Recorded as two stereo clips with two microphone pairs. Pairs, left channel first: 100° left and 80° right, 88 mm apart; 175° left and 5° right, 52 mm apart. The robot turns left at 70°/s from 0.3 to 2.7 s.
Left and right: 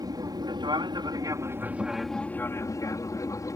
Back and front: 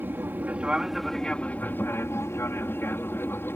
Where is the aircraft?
45° right; by 3.6 s 145° left.